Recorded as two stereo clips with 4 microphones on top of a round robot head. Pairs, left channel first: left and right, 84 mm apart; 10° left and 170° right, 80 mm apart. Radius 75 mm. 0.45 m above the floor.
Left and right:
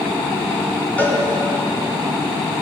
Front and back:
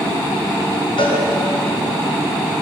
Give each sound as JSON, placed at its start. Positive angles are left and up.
{"t": 1.0, "sound": "a cowbell", "azimuth_deg": 20, "distance_m": 4.0}